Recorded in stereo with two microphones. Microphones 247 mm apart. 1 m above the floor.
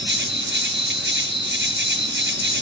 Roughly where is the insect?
Right.